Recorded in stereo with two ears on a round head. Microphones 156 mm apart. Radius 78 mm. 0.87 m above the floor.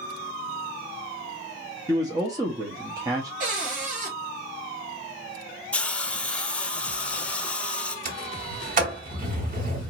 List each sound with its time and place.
1.9 s a man speaking: 20° right (ahead or behind), 1.0 m
3.4 s a cupboard door: 45° right (ahead or behind), 2.5 m
5.7 s a hiss: 5° left (ahead or behind), 0.6 m
8.1 s a sliding door: 50° right (ahead or behind), 2.5 m